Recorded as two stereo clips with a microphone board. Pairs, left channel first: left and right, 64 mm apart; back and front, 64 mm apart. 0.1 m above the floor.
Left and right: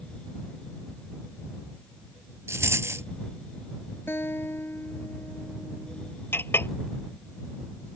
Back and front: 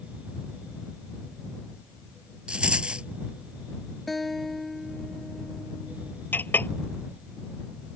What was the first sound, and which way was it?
A rattle, 70° right.